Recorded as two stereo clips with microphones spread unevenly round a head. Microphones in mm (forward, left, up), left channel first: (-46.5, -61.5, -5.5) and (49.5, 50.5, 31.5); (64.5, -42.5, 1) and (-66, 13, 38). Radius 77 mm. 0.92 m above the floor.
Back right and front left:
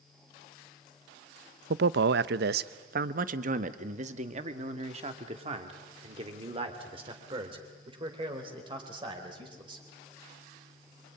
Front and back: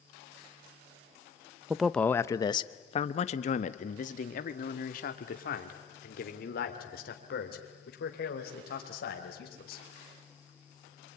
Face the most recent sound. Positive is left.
turn(degrees=-10)